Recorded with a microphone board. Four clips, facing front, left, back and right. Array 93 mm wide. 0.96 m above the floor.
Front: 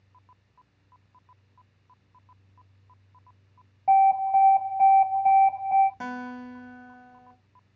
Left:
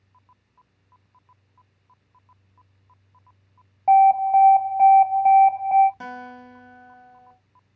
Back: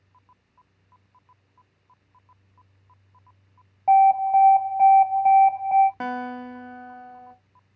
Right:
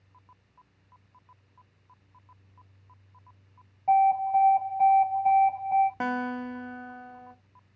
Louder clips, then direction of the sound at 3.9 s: Left 7 dB, back 3 dB; 110° left.